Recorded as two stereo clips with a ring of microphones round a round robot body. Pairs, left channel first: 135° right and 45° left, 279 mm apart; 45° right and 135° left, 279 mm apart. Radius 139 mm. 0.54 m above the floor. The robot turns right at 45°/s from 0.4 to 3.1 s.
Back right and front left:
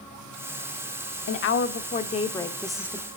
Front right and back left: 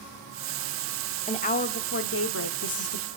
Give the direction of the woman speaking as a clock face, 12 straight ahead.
4 o'clock.